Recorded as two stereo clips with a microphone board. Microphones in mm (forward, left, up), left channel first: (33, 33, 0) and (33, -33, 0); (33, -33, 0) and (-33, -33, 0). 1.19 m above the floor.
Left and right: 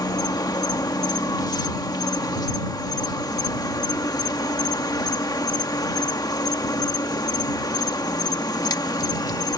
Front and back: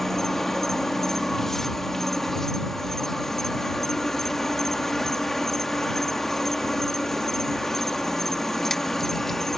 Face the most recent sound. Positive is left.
turn(degrees=85)